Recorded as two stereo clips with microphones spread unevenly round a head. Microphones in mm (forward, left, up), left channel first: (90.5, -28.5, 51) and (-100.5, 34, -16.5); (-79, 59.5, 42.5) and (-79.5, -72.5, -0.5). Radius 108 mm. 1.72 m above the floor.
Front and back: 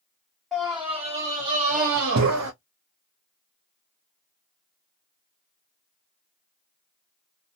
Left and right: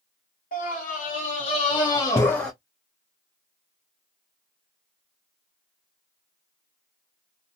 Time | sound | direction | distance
0.5 | a scream | 65° left | 1.3 m